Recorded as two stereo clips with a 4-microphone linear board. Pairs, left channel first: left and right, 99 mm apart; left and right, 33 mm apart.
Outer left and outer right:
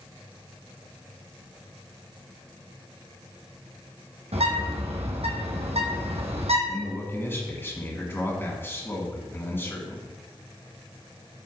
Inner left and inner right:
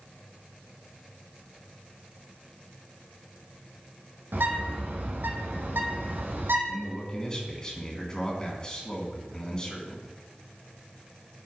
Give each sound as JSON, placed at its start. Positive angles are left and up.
{"t": 4.3, "sound": "a bird", "side_deg": -85, "distance_m": 1.8}
{"t": 6.7, "sound": "a man speaking", "side_deg": 20, "distance_m": 2.5}